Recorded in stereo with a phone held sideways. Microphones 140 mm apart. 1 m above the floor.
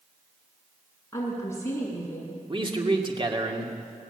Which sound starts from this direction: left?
A woman speaking, at 1.1 s.